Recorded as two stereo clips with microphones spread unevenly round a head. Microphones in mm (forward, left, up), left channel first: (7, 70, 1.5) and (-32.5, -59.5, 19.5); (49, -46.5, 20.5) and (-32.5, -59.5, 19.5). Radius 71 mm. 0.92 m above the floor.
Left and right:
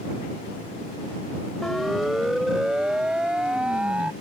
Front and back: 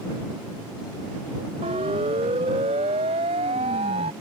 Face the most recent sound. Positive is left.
turn(degrees=170)